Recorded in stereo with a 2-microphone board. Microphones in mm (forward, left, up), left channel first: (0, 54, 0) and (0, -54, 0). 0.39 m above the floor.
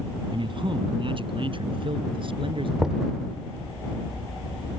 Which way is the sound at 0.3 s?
50° right (ahead or behind).